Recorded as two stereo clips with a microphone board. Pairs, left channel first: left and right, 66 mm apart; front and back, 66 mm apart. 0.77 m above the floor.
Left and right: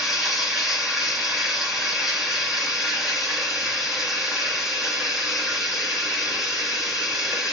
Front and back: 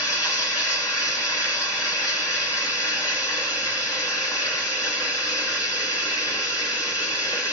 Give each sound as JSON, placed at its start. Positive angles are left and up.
{"t": 0.0, "sound": "running water", "azimuth_deg": -5, "distance_m": 2.0}